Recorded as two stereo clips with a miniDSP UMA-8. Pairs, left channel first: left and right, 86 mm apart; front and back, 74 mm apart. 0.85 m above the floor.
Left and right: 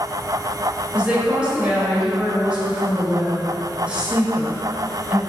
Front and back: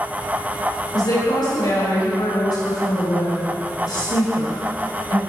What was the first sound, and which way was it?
A woman speaking, 15° right.